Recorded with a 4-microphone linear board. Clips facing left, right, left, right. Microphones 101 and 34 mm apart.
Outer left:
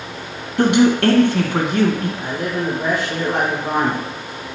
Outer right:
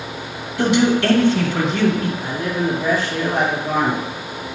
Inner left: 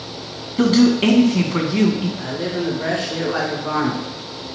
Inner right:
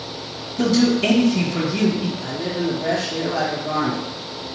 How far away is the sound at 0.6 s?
About 2 m.